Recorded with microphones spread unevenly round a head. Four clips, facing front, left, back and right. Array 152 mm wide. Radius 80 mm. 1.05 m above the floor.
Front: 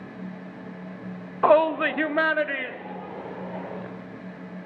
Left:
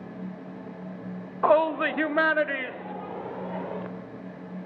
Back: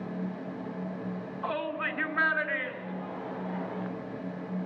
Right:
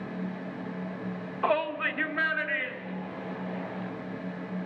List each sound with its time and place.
1.4 s a shout: 15° left, 0.9 m; by 3.9 s 65° left, 3.5 m